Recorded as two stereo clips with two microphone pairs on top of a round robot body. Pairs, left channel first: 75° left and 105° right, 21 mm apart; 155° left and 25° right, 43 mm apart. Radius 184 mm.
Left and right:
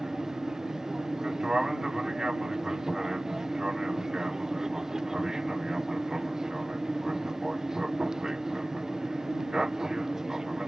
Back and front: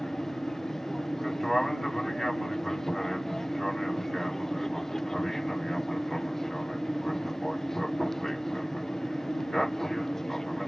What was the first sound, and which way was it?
An aircraft, 130° right.